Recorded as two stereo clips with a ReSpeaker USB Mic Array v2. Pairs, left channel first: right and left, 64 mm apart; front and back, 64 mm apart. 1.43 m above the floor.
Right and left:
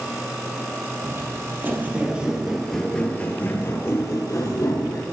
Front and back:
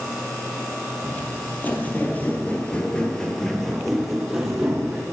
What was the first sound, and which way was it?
Footsteps, 55° left.